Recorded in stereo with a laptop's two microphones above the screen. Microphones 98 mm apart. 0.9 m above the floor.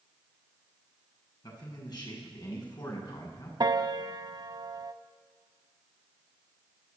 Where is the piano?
45° right (ahead or behind), 1.0 m.